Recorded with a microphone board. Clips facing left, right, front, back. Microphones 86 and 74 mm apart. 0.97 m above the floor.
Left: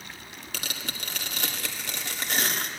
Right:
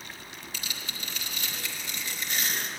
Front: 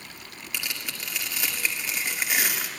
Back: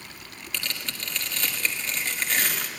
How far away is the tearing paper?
About 1.9 m.